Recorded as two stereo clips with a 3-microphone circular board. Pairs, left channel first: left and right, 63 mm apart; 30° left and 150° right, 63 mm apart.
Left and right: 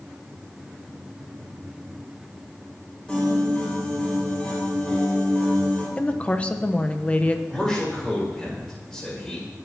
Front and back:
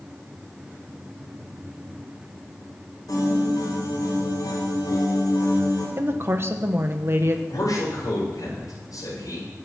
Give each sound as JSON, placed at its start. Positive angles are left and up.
{"t": 3.1, "sound": "a piano", "azimuth_deg": 10, "distance_m": 7.5}
{"t": 6.0, "sound": "a woman speaking", "azimuth_deg": 160, "distance_m": 1.2}
{"t": 7.5, "sound": "a man speaking", "azimuth_deg": 5, "distance_m": 8.5}